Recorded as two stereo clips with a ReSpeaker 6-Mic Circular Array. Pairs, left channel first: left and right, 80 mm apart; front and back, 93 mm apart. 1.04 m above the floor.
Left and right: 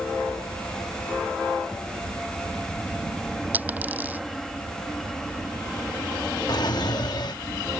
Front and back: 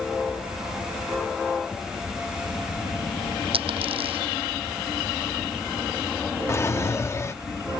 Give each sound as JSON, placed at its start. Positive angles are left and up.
{"t": 3.5, "sound": "a dropped coin", "azimuth_deg": -160}
{"t": 6.5, "sound": "a drawer", "azimuth_deg": 60}